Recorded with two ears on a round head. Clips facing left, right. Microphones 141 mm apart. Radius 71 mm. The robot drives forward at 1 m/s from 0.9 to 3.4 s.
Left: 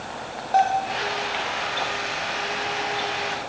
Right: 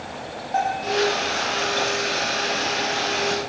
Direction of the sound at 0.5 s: 40° left (ahead or behind).